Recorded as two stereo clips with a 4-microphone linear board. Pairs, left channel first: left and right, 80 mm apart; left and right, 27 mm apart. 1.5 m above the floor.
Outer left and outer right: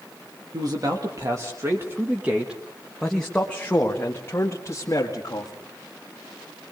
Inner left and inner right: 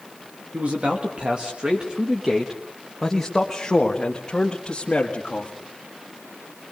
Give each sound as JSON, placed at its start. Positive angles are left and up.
{"t": 0.5, "sound": "a man speaking", "side_deg": -55, "distance_m": 2.0}